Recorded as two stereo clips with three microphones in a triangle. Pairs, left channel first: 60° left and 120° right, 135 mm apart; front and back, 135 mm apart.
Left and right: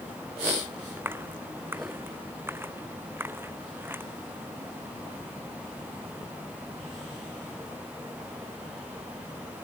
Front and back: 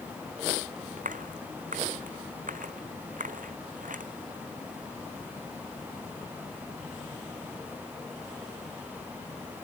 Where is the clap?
165° left.